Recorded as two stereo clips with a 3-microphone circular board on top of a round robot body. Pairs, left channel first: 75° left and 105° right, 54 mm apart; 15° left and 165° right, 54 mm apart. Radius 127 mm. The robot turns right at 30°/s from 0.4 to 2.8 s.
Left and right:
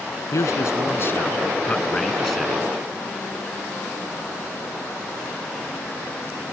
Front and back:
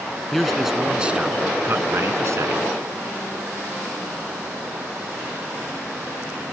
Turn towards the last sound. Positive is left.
turn(degrees=175)